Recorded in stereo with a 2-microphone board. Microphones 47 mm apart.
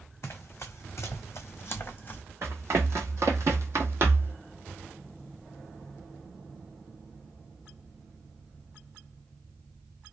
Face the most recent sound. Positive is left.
turn(degrees=-45)  # may be behind; listen again after turning